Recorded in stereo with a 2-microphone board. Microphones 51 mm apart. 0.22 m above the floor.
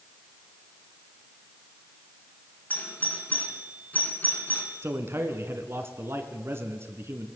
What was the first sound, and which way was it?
A doorbell, 35° left (ahead or behind).